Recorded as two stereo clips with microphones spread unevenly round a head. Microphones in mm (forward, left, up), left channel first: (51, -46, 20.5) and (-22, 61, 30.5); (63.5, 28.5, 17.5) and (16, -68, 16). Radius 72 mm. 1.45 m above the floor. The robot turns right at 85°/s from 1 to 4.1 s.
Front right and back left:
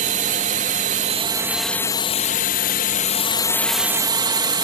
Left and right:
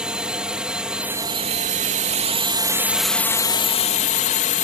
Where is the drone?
160° left; by 4.7 s 65° left.